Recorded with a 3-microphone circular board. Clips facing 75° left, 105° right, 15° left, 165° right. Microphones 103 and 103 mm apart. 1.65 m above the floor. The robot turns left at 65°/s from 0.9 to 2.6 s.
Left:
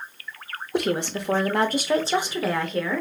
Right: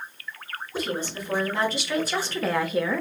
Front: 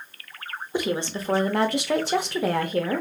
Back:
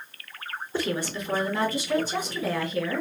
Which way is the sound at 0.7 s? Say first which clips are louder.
Left 6 dB, front 2 dB; 90° left.